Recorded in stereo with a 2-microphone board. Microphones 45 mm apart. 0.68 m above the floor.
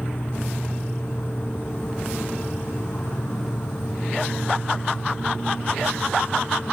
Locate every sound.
0.0 s an insect: 50° left (ahead or behind), 4 m